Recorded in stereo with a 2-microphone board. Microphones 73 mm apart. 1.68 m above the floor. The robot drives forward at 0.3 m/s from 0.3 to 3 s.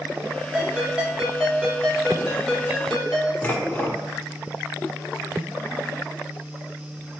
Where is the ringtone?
10° right (ahead or behind), 1.0 m.